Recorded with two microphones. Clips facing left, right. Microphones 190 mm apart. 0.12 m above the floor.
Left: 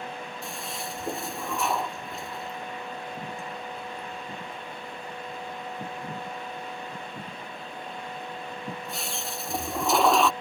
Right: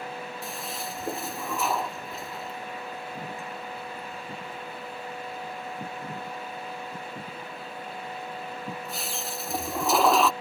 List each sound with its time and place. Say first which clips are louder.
0.4 s a toilet flushing: even; centre (ahead or behind)